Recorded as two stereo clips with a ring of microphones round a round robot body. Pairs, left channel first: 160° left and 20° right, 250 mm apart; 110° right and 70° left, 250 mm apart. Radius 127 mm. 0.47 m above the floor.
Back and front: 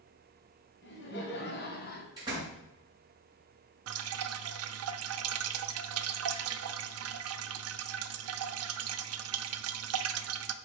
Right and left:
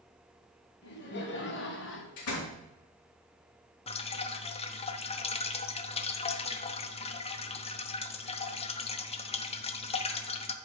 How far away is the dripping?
About 0.7 m.